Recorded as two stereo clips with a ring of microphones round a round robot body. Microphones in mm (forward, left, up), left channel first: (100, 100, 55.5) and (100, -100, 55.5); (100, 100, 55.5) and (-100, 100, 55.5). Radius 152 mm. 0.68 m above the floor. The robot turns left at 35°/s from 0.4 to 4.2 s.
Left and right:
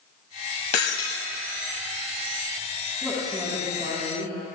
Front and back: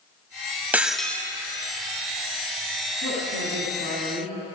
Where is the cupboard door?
No cupboard door in this recording.